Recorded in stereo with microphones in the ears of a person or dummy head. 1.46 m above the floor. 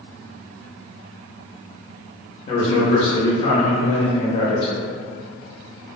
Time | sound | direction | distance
2.5 | a man speaking | 40° left (ahead or behind) | 0.6 m